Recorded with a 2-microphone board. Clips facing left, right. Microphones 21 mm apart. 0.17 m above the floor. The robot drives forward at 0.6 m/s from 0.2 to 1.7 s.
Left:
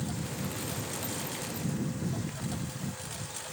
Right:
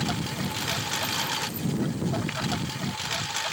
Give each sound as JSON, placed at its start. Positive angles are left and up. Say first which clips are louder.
{"t": 0.0, "sound": "a lawn mower", "louder": "right 7 dB", "side_deg": -65}